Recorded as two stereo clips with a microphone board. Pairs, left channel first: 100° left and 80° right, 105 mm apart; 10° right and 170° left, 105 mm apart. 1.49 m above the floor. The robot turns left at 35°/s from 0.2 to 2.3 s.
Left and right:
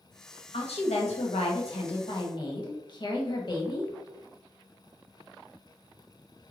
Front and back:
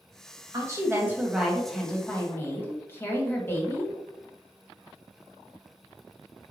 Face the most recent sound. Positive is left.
turn(degrees=55)